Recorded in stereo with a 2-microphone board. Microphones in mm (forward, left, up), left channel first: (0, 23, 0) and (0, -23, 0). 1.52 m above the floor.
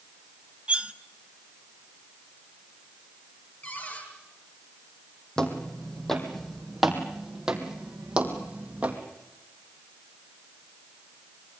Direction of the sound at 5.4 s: 15° left (ahead or behind).